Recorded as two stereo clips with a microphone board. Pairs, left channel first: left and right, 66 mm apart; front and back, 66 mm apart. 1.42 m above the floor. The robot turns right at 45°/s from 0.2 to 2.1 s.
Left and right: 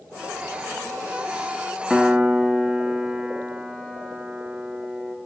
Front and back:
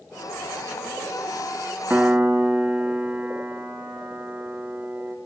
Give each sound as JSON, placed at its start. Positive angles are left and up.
{"t": 1.9, "sound": "a piano", "azimuth_deg": -165, "distance_m": 0.6}